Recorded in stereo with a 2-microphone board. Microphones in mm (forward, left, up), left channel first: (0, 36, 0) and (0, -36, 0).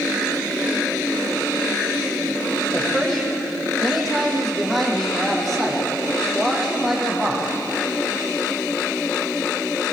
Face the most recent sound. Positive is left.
turn(degrees=0)  # may be behind; listen again after turning